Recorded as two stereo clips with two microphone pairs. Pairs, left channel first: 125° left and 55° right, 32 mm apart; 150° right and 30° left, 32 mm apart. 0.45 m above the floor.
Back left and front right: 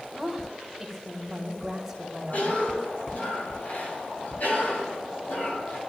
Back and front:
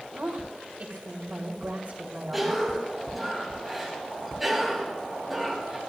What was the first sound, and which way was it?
A woman speaking, 30° left.